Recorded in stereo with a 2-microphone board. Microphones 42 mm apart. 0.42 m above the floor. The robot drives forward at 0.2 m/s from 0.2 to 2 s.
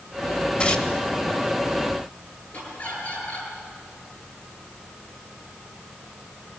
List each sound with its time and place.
0.6 s tearing paper: 30° left (ahead or behind), 1.8 m; by 0.9 s 25° left (ahead or behind), 1.9 m
2.5 s laughter: 45° left (ahead or behind), 9 m